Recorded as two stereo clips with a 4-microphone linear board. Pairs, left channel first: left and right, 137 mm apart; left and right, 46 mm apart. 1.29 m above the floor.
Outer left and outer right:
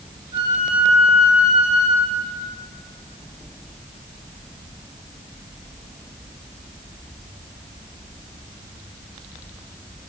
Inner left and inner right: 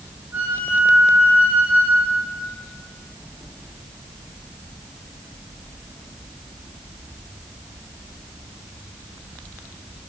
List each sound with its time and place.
0.3 s a flute: 40° right (ahead or behind), 4 m